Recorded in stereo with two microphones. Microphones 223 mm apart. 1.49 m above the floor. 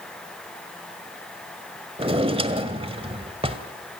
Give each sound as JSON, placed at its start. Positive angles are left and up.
{"t": 2.0, "sound": "a drawer", "side_deg": -25, "distance_m": 1.5}